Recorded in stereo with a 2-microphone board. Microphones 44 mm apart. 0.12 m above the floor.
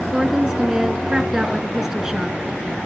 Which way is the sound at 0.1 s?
10° right (ahead or behind).